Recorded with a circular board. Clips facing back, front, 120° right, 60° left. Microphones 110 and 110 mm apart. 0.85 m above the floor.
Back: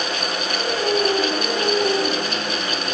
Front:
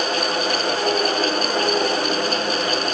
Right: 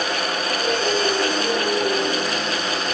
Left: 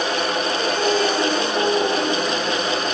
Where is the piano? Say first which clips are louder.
Back 4 dB, left 1 dB; 55° left, 7 m.